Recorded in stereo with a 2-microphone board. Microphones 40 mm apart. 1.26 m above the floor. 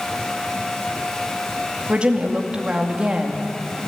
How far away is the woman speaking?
About 2.5 m.